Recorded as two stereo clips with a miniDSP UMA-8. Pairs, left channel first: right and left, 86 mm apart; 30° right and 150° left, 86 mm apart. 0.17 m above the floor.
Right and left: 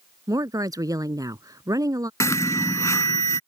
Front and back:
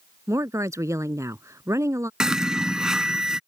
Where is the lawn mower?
I don't hear a lawn mower.